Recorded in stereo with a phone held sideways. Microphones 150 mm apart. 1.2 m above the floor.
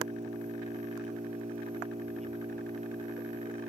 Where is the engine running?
50° right (ahead or behind).